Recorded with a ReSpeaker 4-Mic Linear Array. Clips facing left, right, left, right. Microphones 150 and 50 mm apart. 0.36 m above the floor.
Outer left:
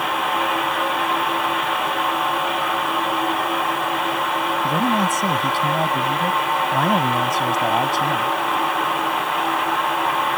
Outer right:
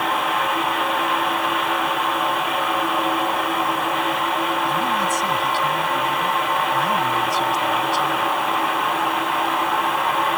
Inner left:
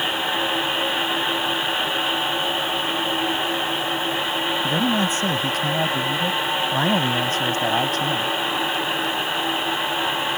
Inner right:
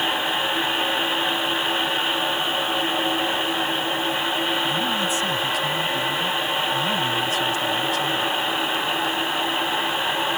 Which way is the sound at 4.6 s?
50° left (ahead or behind).